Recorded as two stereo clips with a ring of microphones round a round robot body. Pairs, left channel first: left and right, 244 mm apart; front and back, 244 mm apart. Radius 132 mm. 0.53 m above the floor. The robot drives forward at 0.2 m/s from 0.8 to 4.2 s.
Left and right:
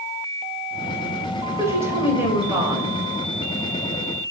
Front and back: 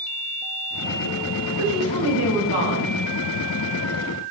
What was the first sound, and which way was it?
A woman speaking, 170° right.